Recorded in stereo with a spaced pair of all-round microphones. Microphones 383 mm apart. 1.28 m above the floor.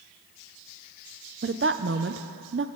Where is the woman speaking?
35° right (ahead or behind), 0.6 m.